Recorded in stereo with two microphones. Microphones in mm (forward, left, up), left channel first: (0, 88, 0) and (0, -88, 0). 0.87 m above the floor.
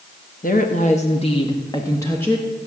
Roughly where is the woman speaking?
Left.